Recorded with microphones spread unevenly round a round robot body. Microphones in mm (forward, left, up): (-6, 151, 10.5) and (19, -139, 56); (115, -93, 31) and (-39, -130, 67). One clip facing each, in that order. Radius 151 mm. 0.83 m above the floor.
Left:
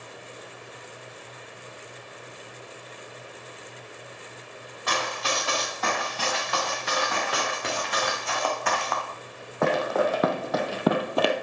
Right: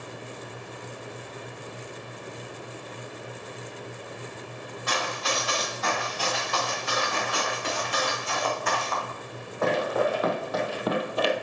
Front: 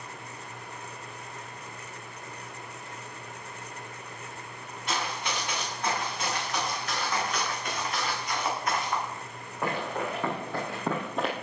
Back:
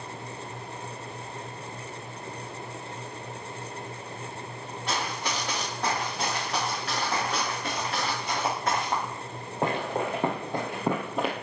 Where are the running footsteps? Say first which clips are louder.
Left 1 dB, back 1 dB; 135° left, 5 m; by 11.3 s 115° left, 1.0 m.